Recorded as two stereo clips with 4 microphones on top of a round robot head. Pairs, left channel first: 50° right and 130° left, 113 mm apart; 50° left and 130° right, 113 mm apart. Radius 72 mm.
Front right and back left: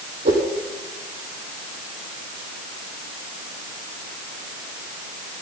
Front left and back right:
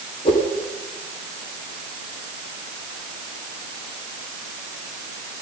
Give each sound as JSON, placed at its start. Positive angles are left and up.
{"t": 0.2, "sound": "a whoosh", "azimuth_deg": 100, "distance_m": 3.5}